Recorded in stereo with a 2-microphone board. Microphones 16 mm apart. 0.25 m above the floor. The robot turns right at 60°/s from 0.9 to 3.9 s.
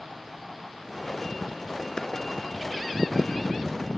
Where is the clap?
60° left (ahead or behind), 3 m; by 2.1 s 55° left (ahead or behind), 3 m.